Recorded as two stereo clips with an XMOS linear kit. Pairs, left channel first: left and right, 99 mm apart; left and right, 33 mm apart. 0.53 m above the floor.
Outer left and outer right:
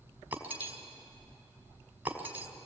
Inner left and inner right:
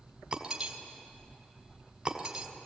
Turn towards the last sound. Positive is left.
turn(degrees=-20)  # may be behind; listen again after turning